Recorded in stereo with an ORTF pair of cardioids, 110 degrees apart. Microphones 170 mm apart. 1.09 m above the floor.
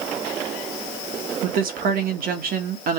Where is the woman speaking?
65° right, 1.5 m.